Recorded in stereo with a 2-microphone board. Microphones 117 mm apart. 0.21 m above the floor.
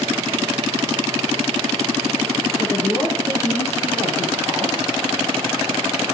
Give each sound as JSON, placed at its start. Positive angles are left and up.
{"t": 2.6, "sound": "a woman speaking", "side_deg": 35, "distance_m": 5.0}